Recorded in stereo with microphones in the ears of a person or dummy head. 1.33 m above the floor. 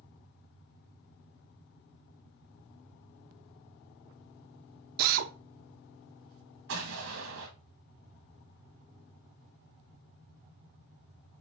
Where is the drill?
50° right (ahead or behind), 0.7 m.